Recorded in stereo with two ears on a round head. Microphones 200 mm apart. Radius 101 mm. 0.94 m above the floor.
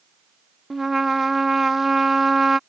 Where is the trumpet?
Centre (ahead or behind).